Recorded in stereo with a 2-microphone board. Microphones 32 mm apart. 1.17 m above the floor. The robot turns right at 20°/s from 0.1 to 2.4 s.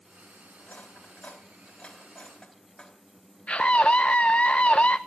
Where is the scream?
45° left (ahead or behind), 0.6 m.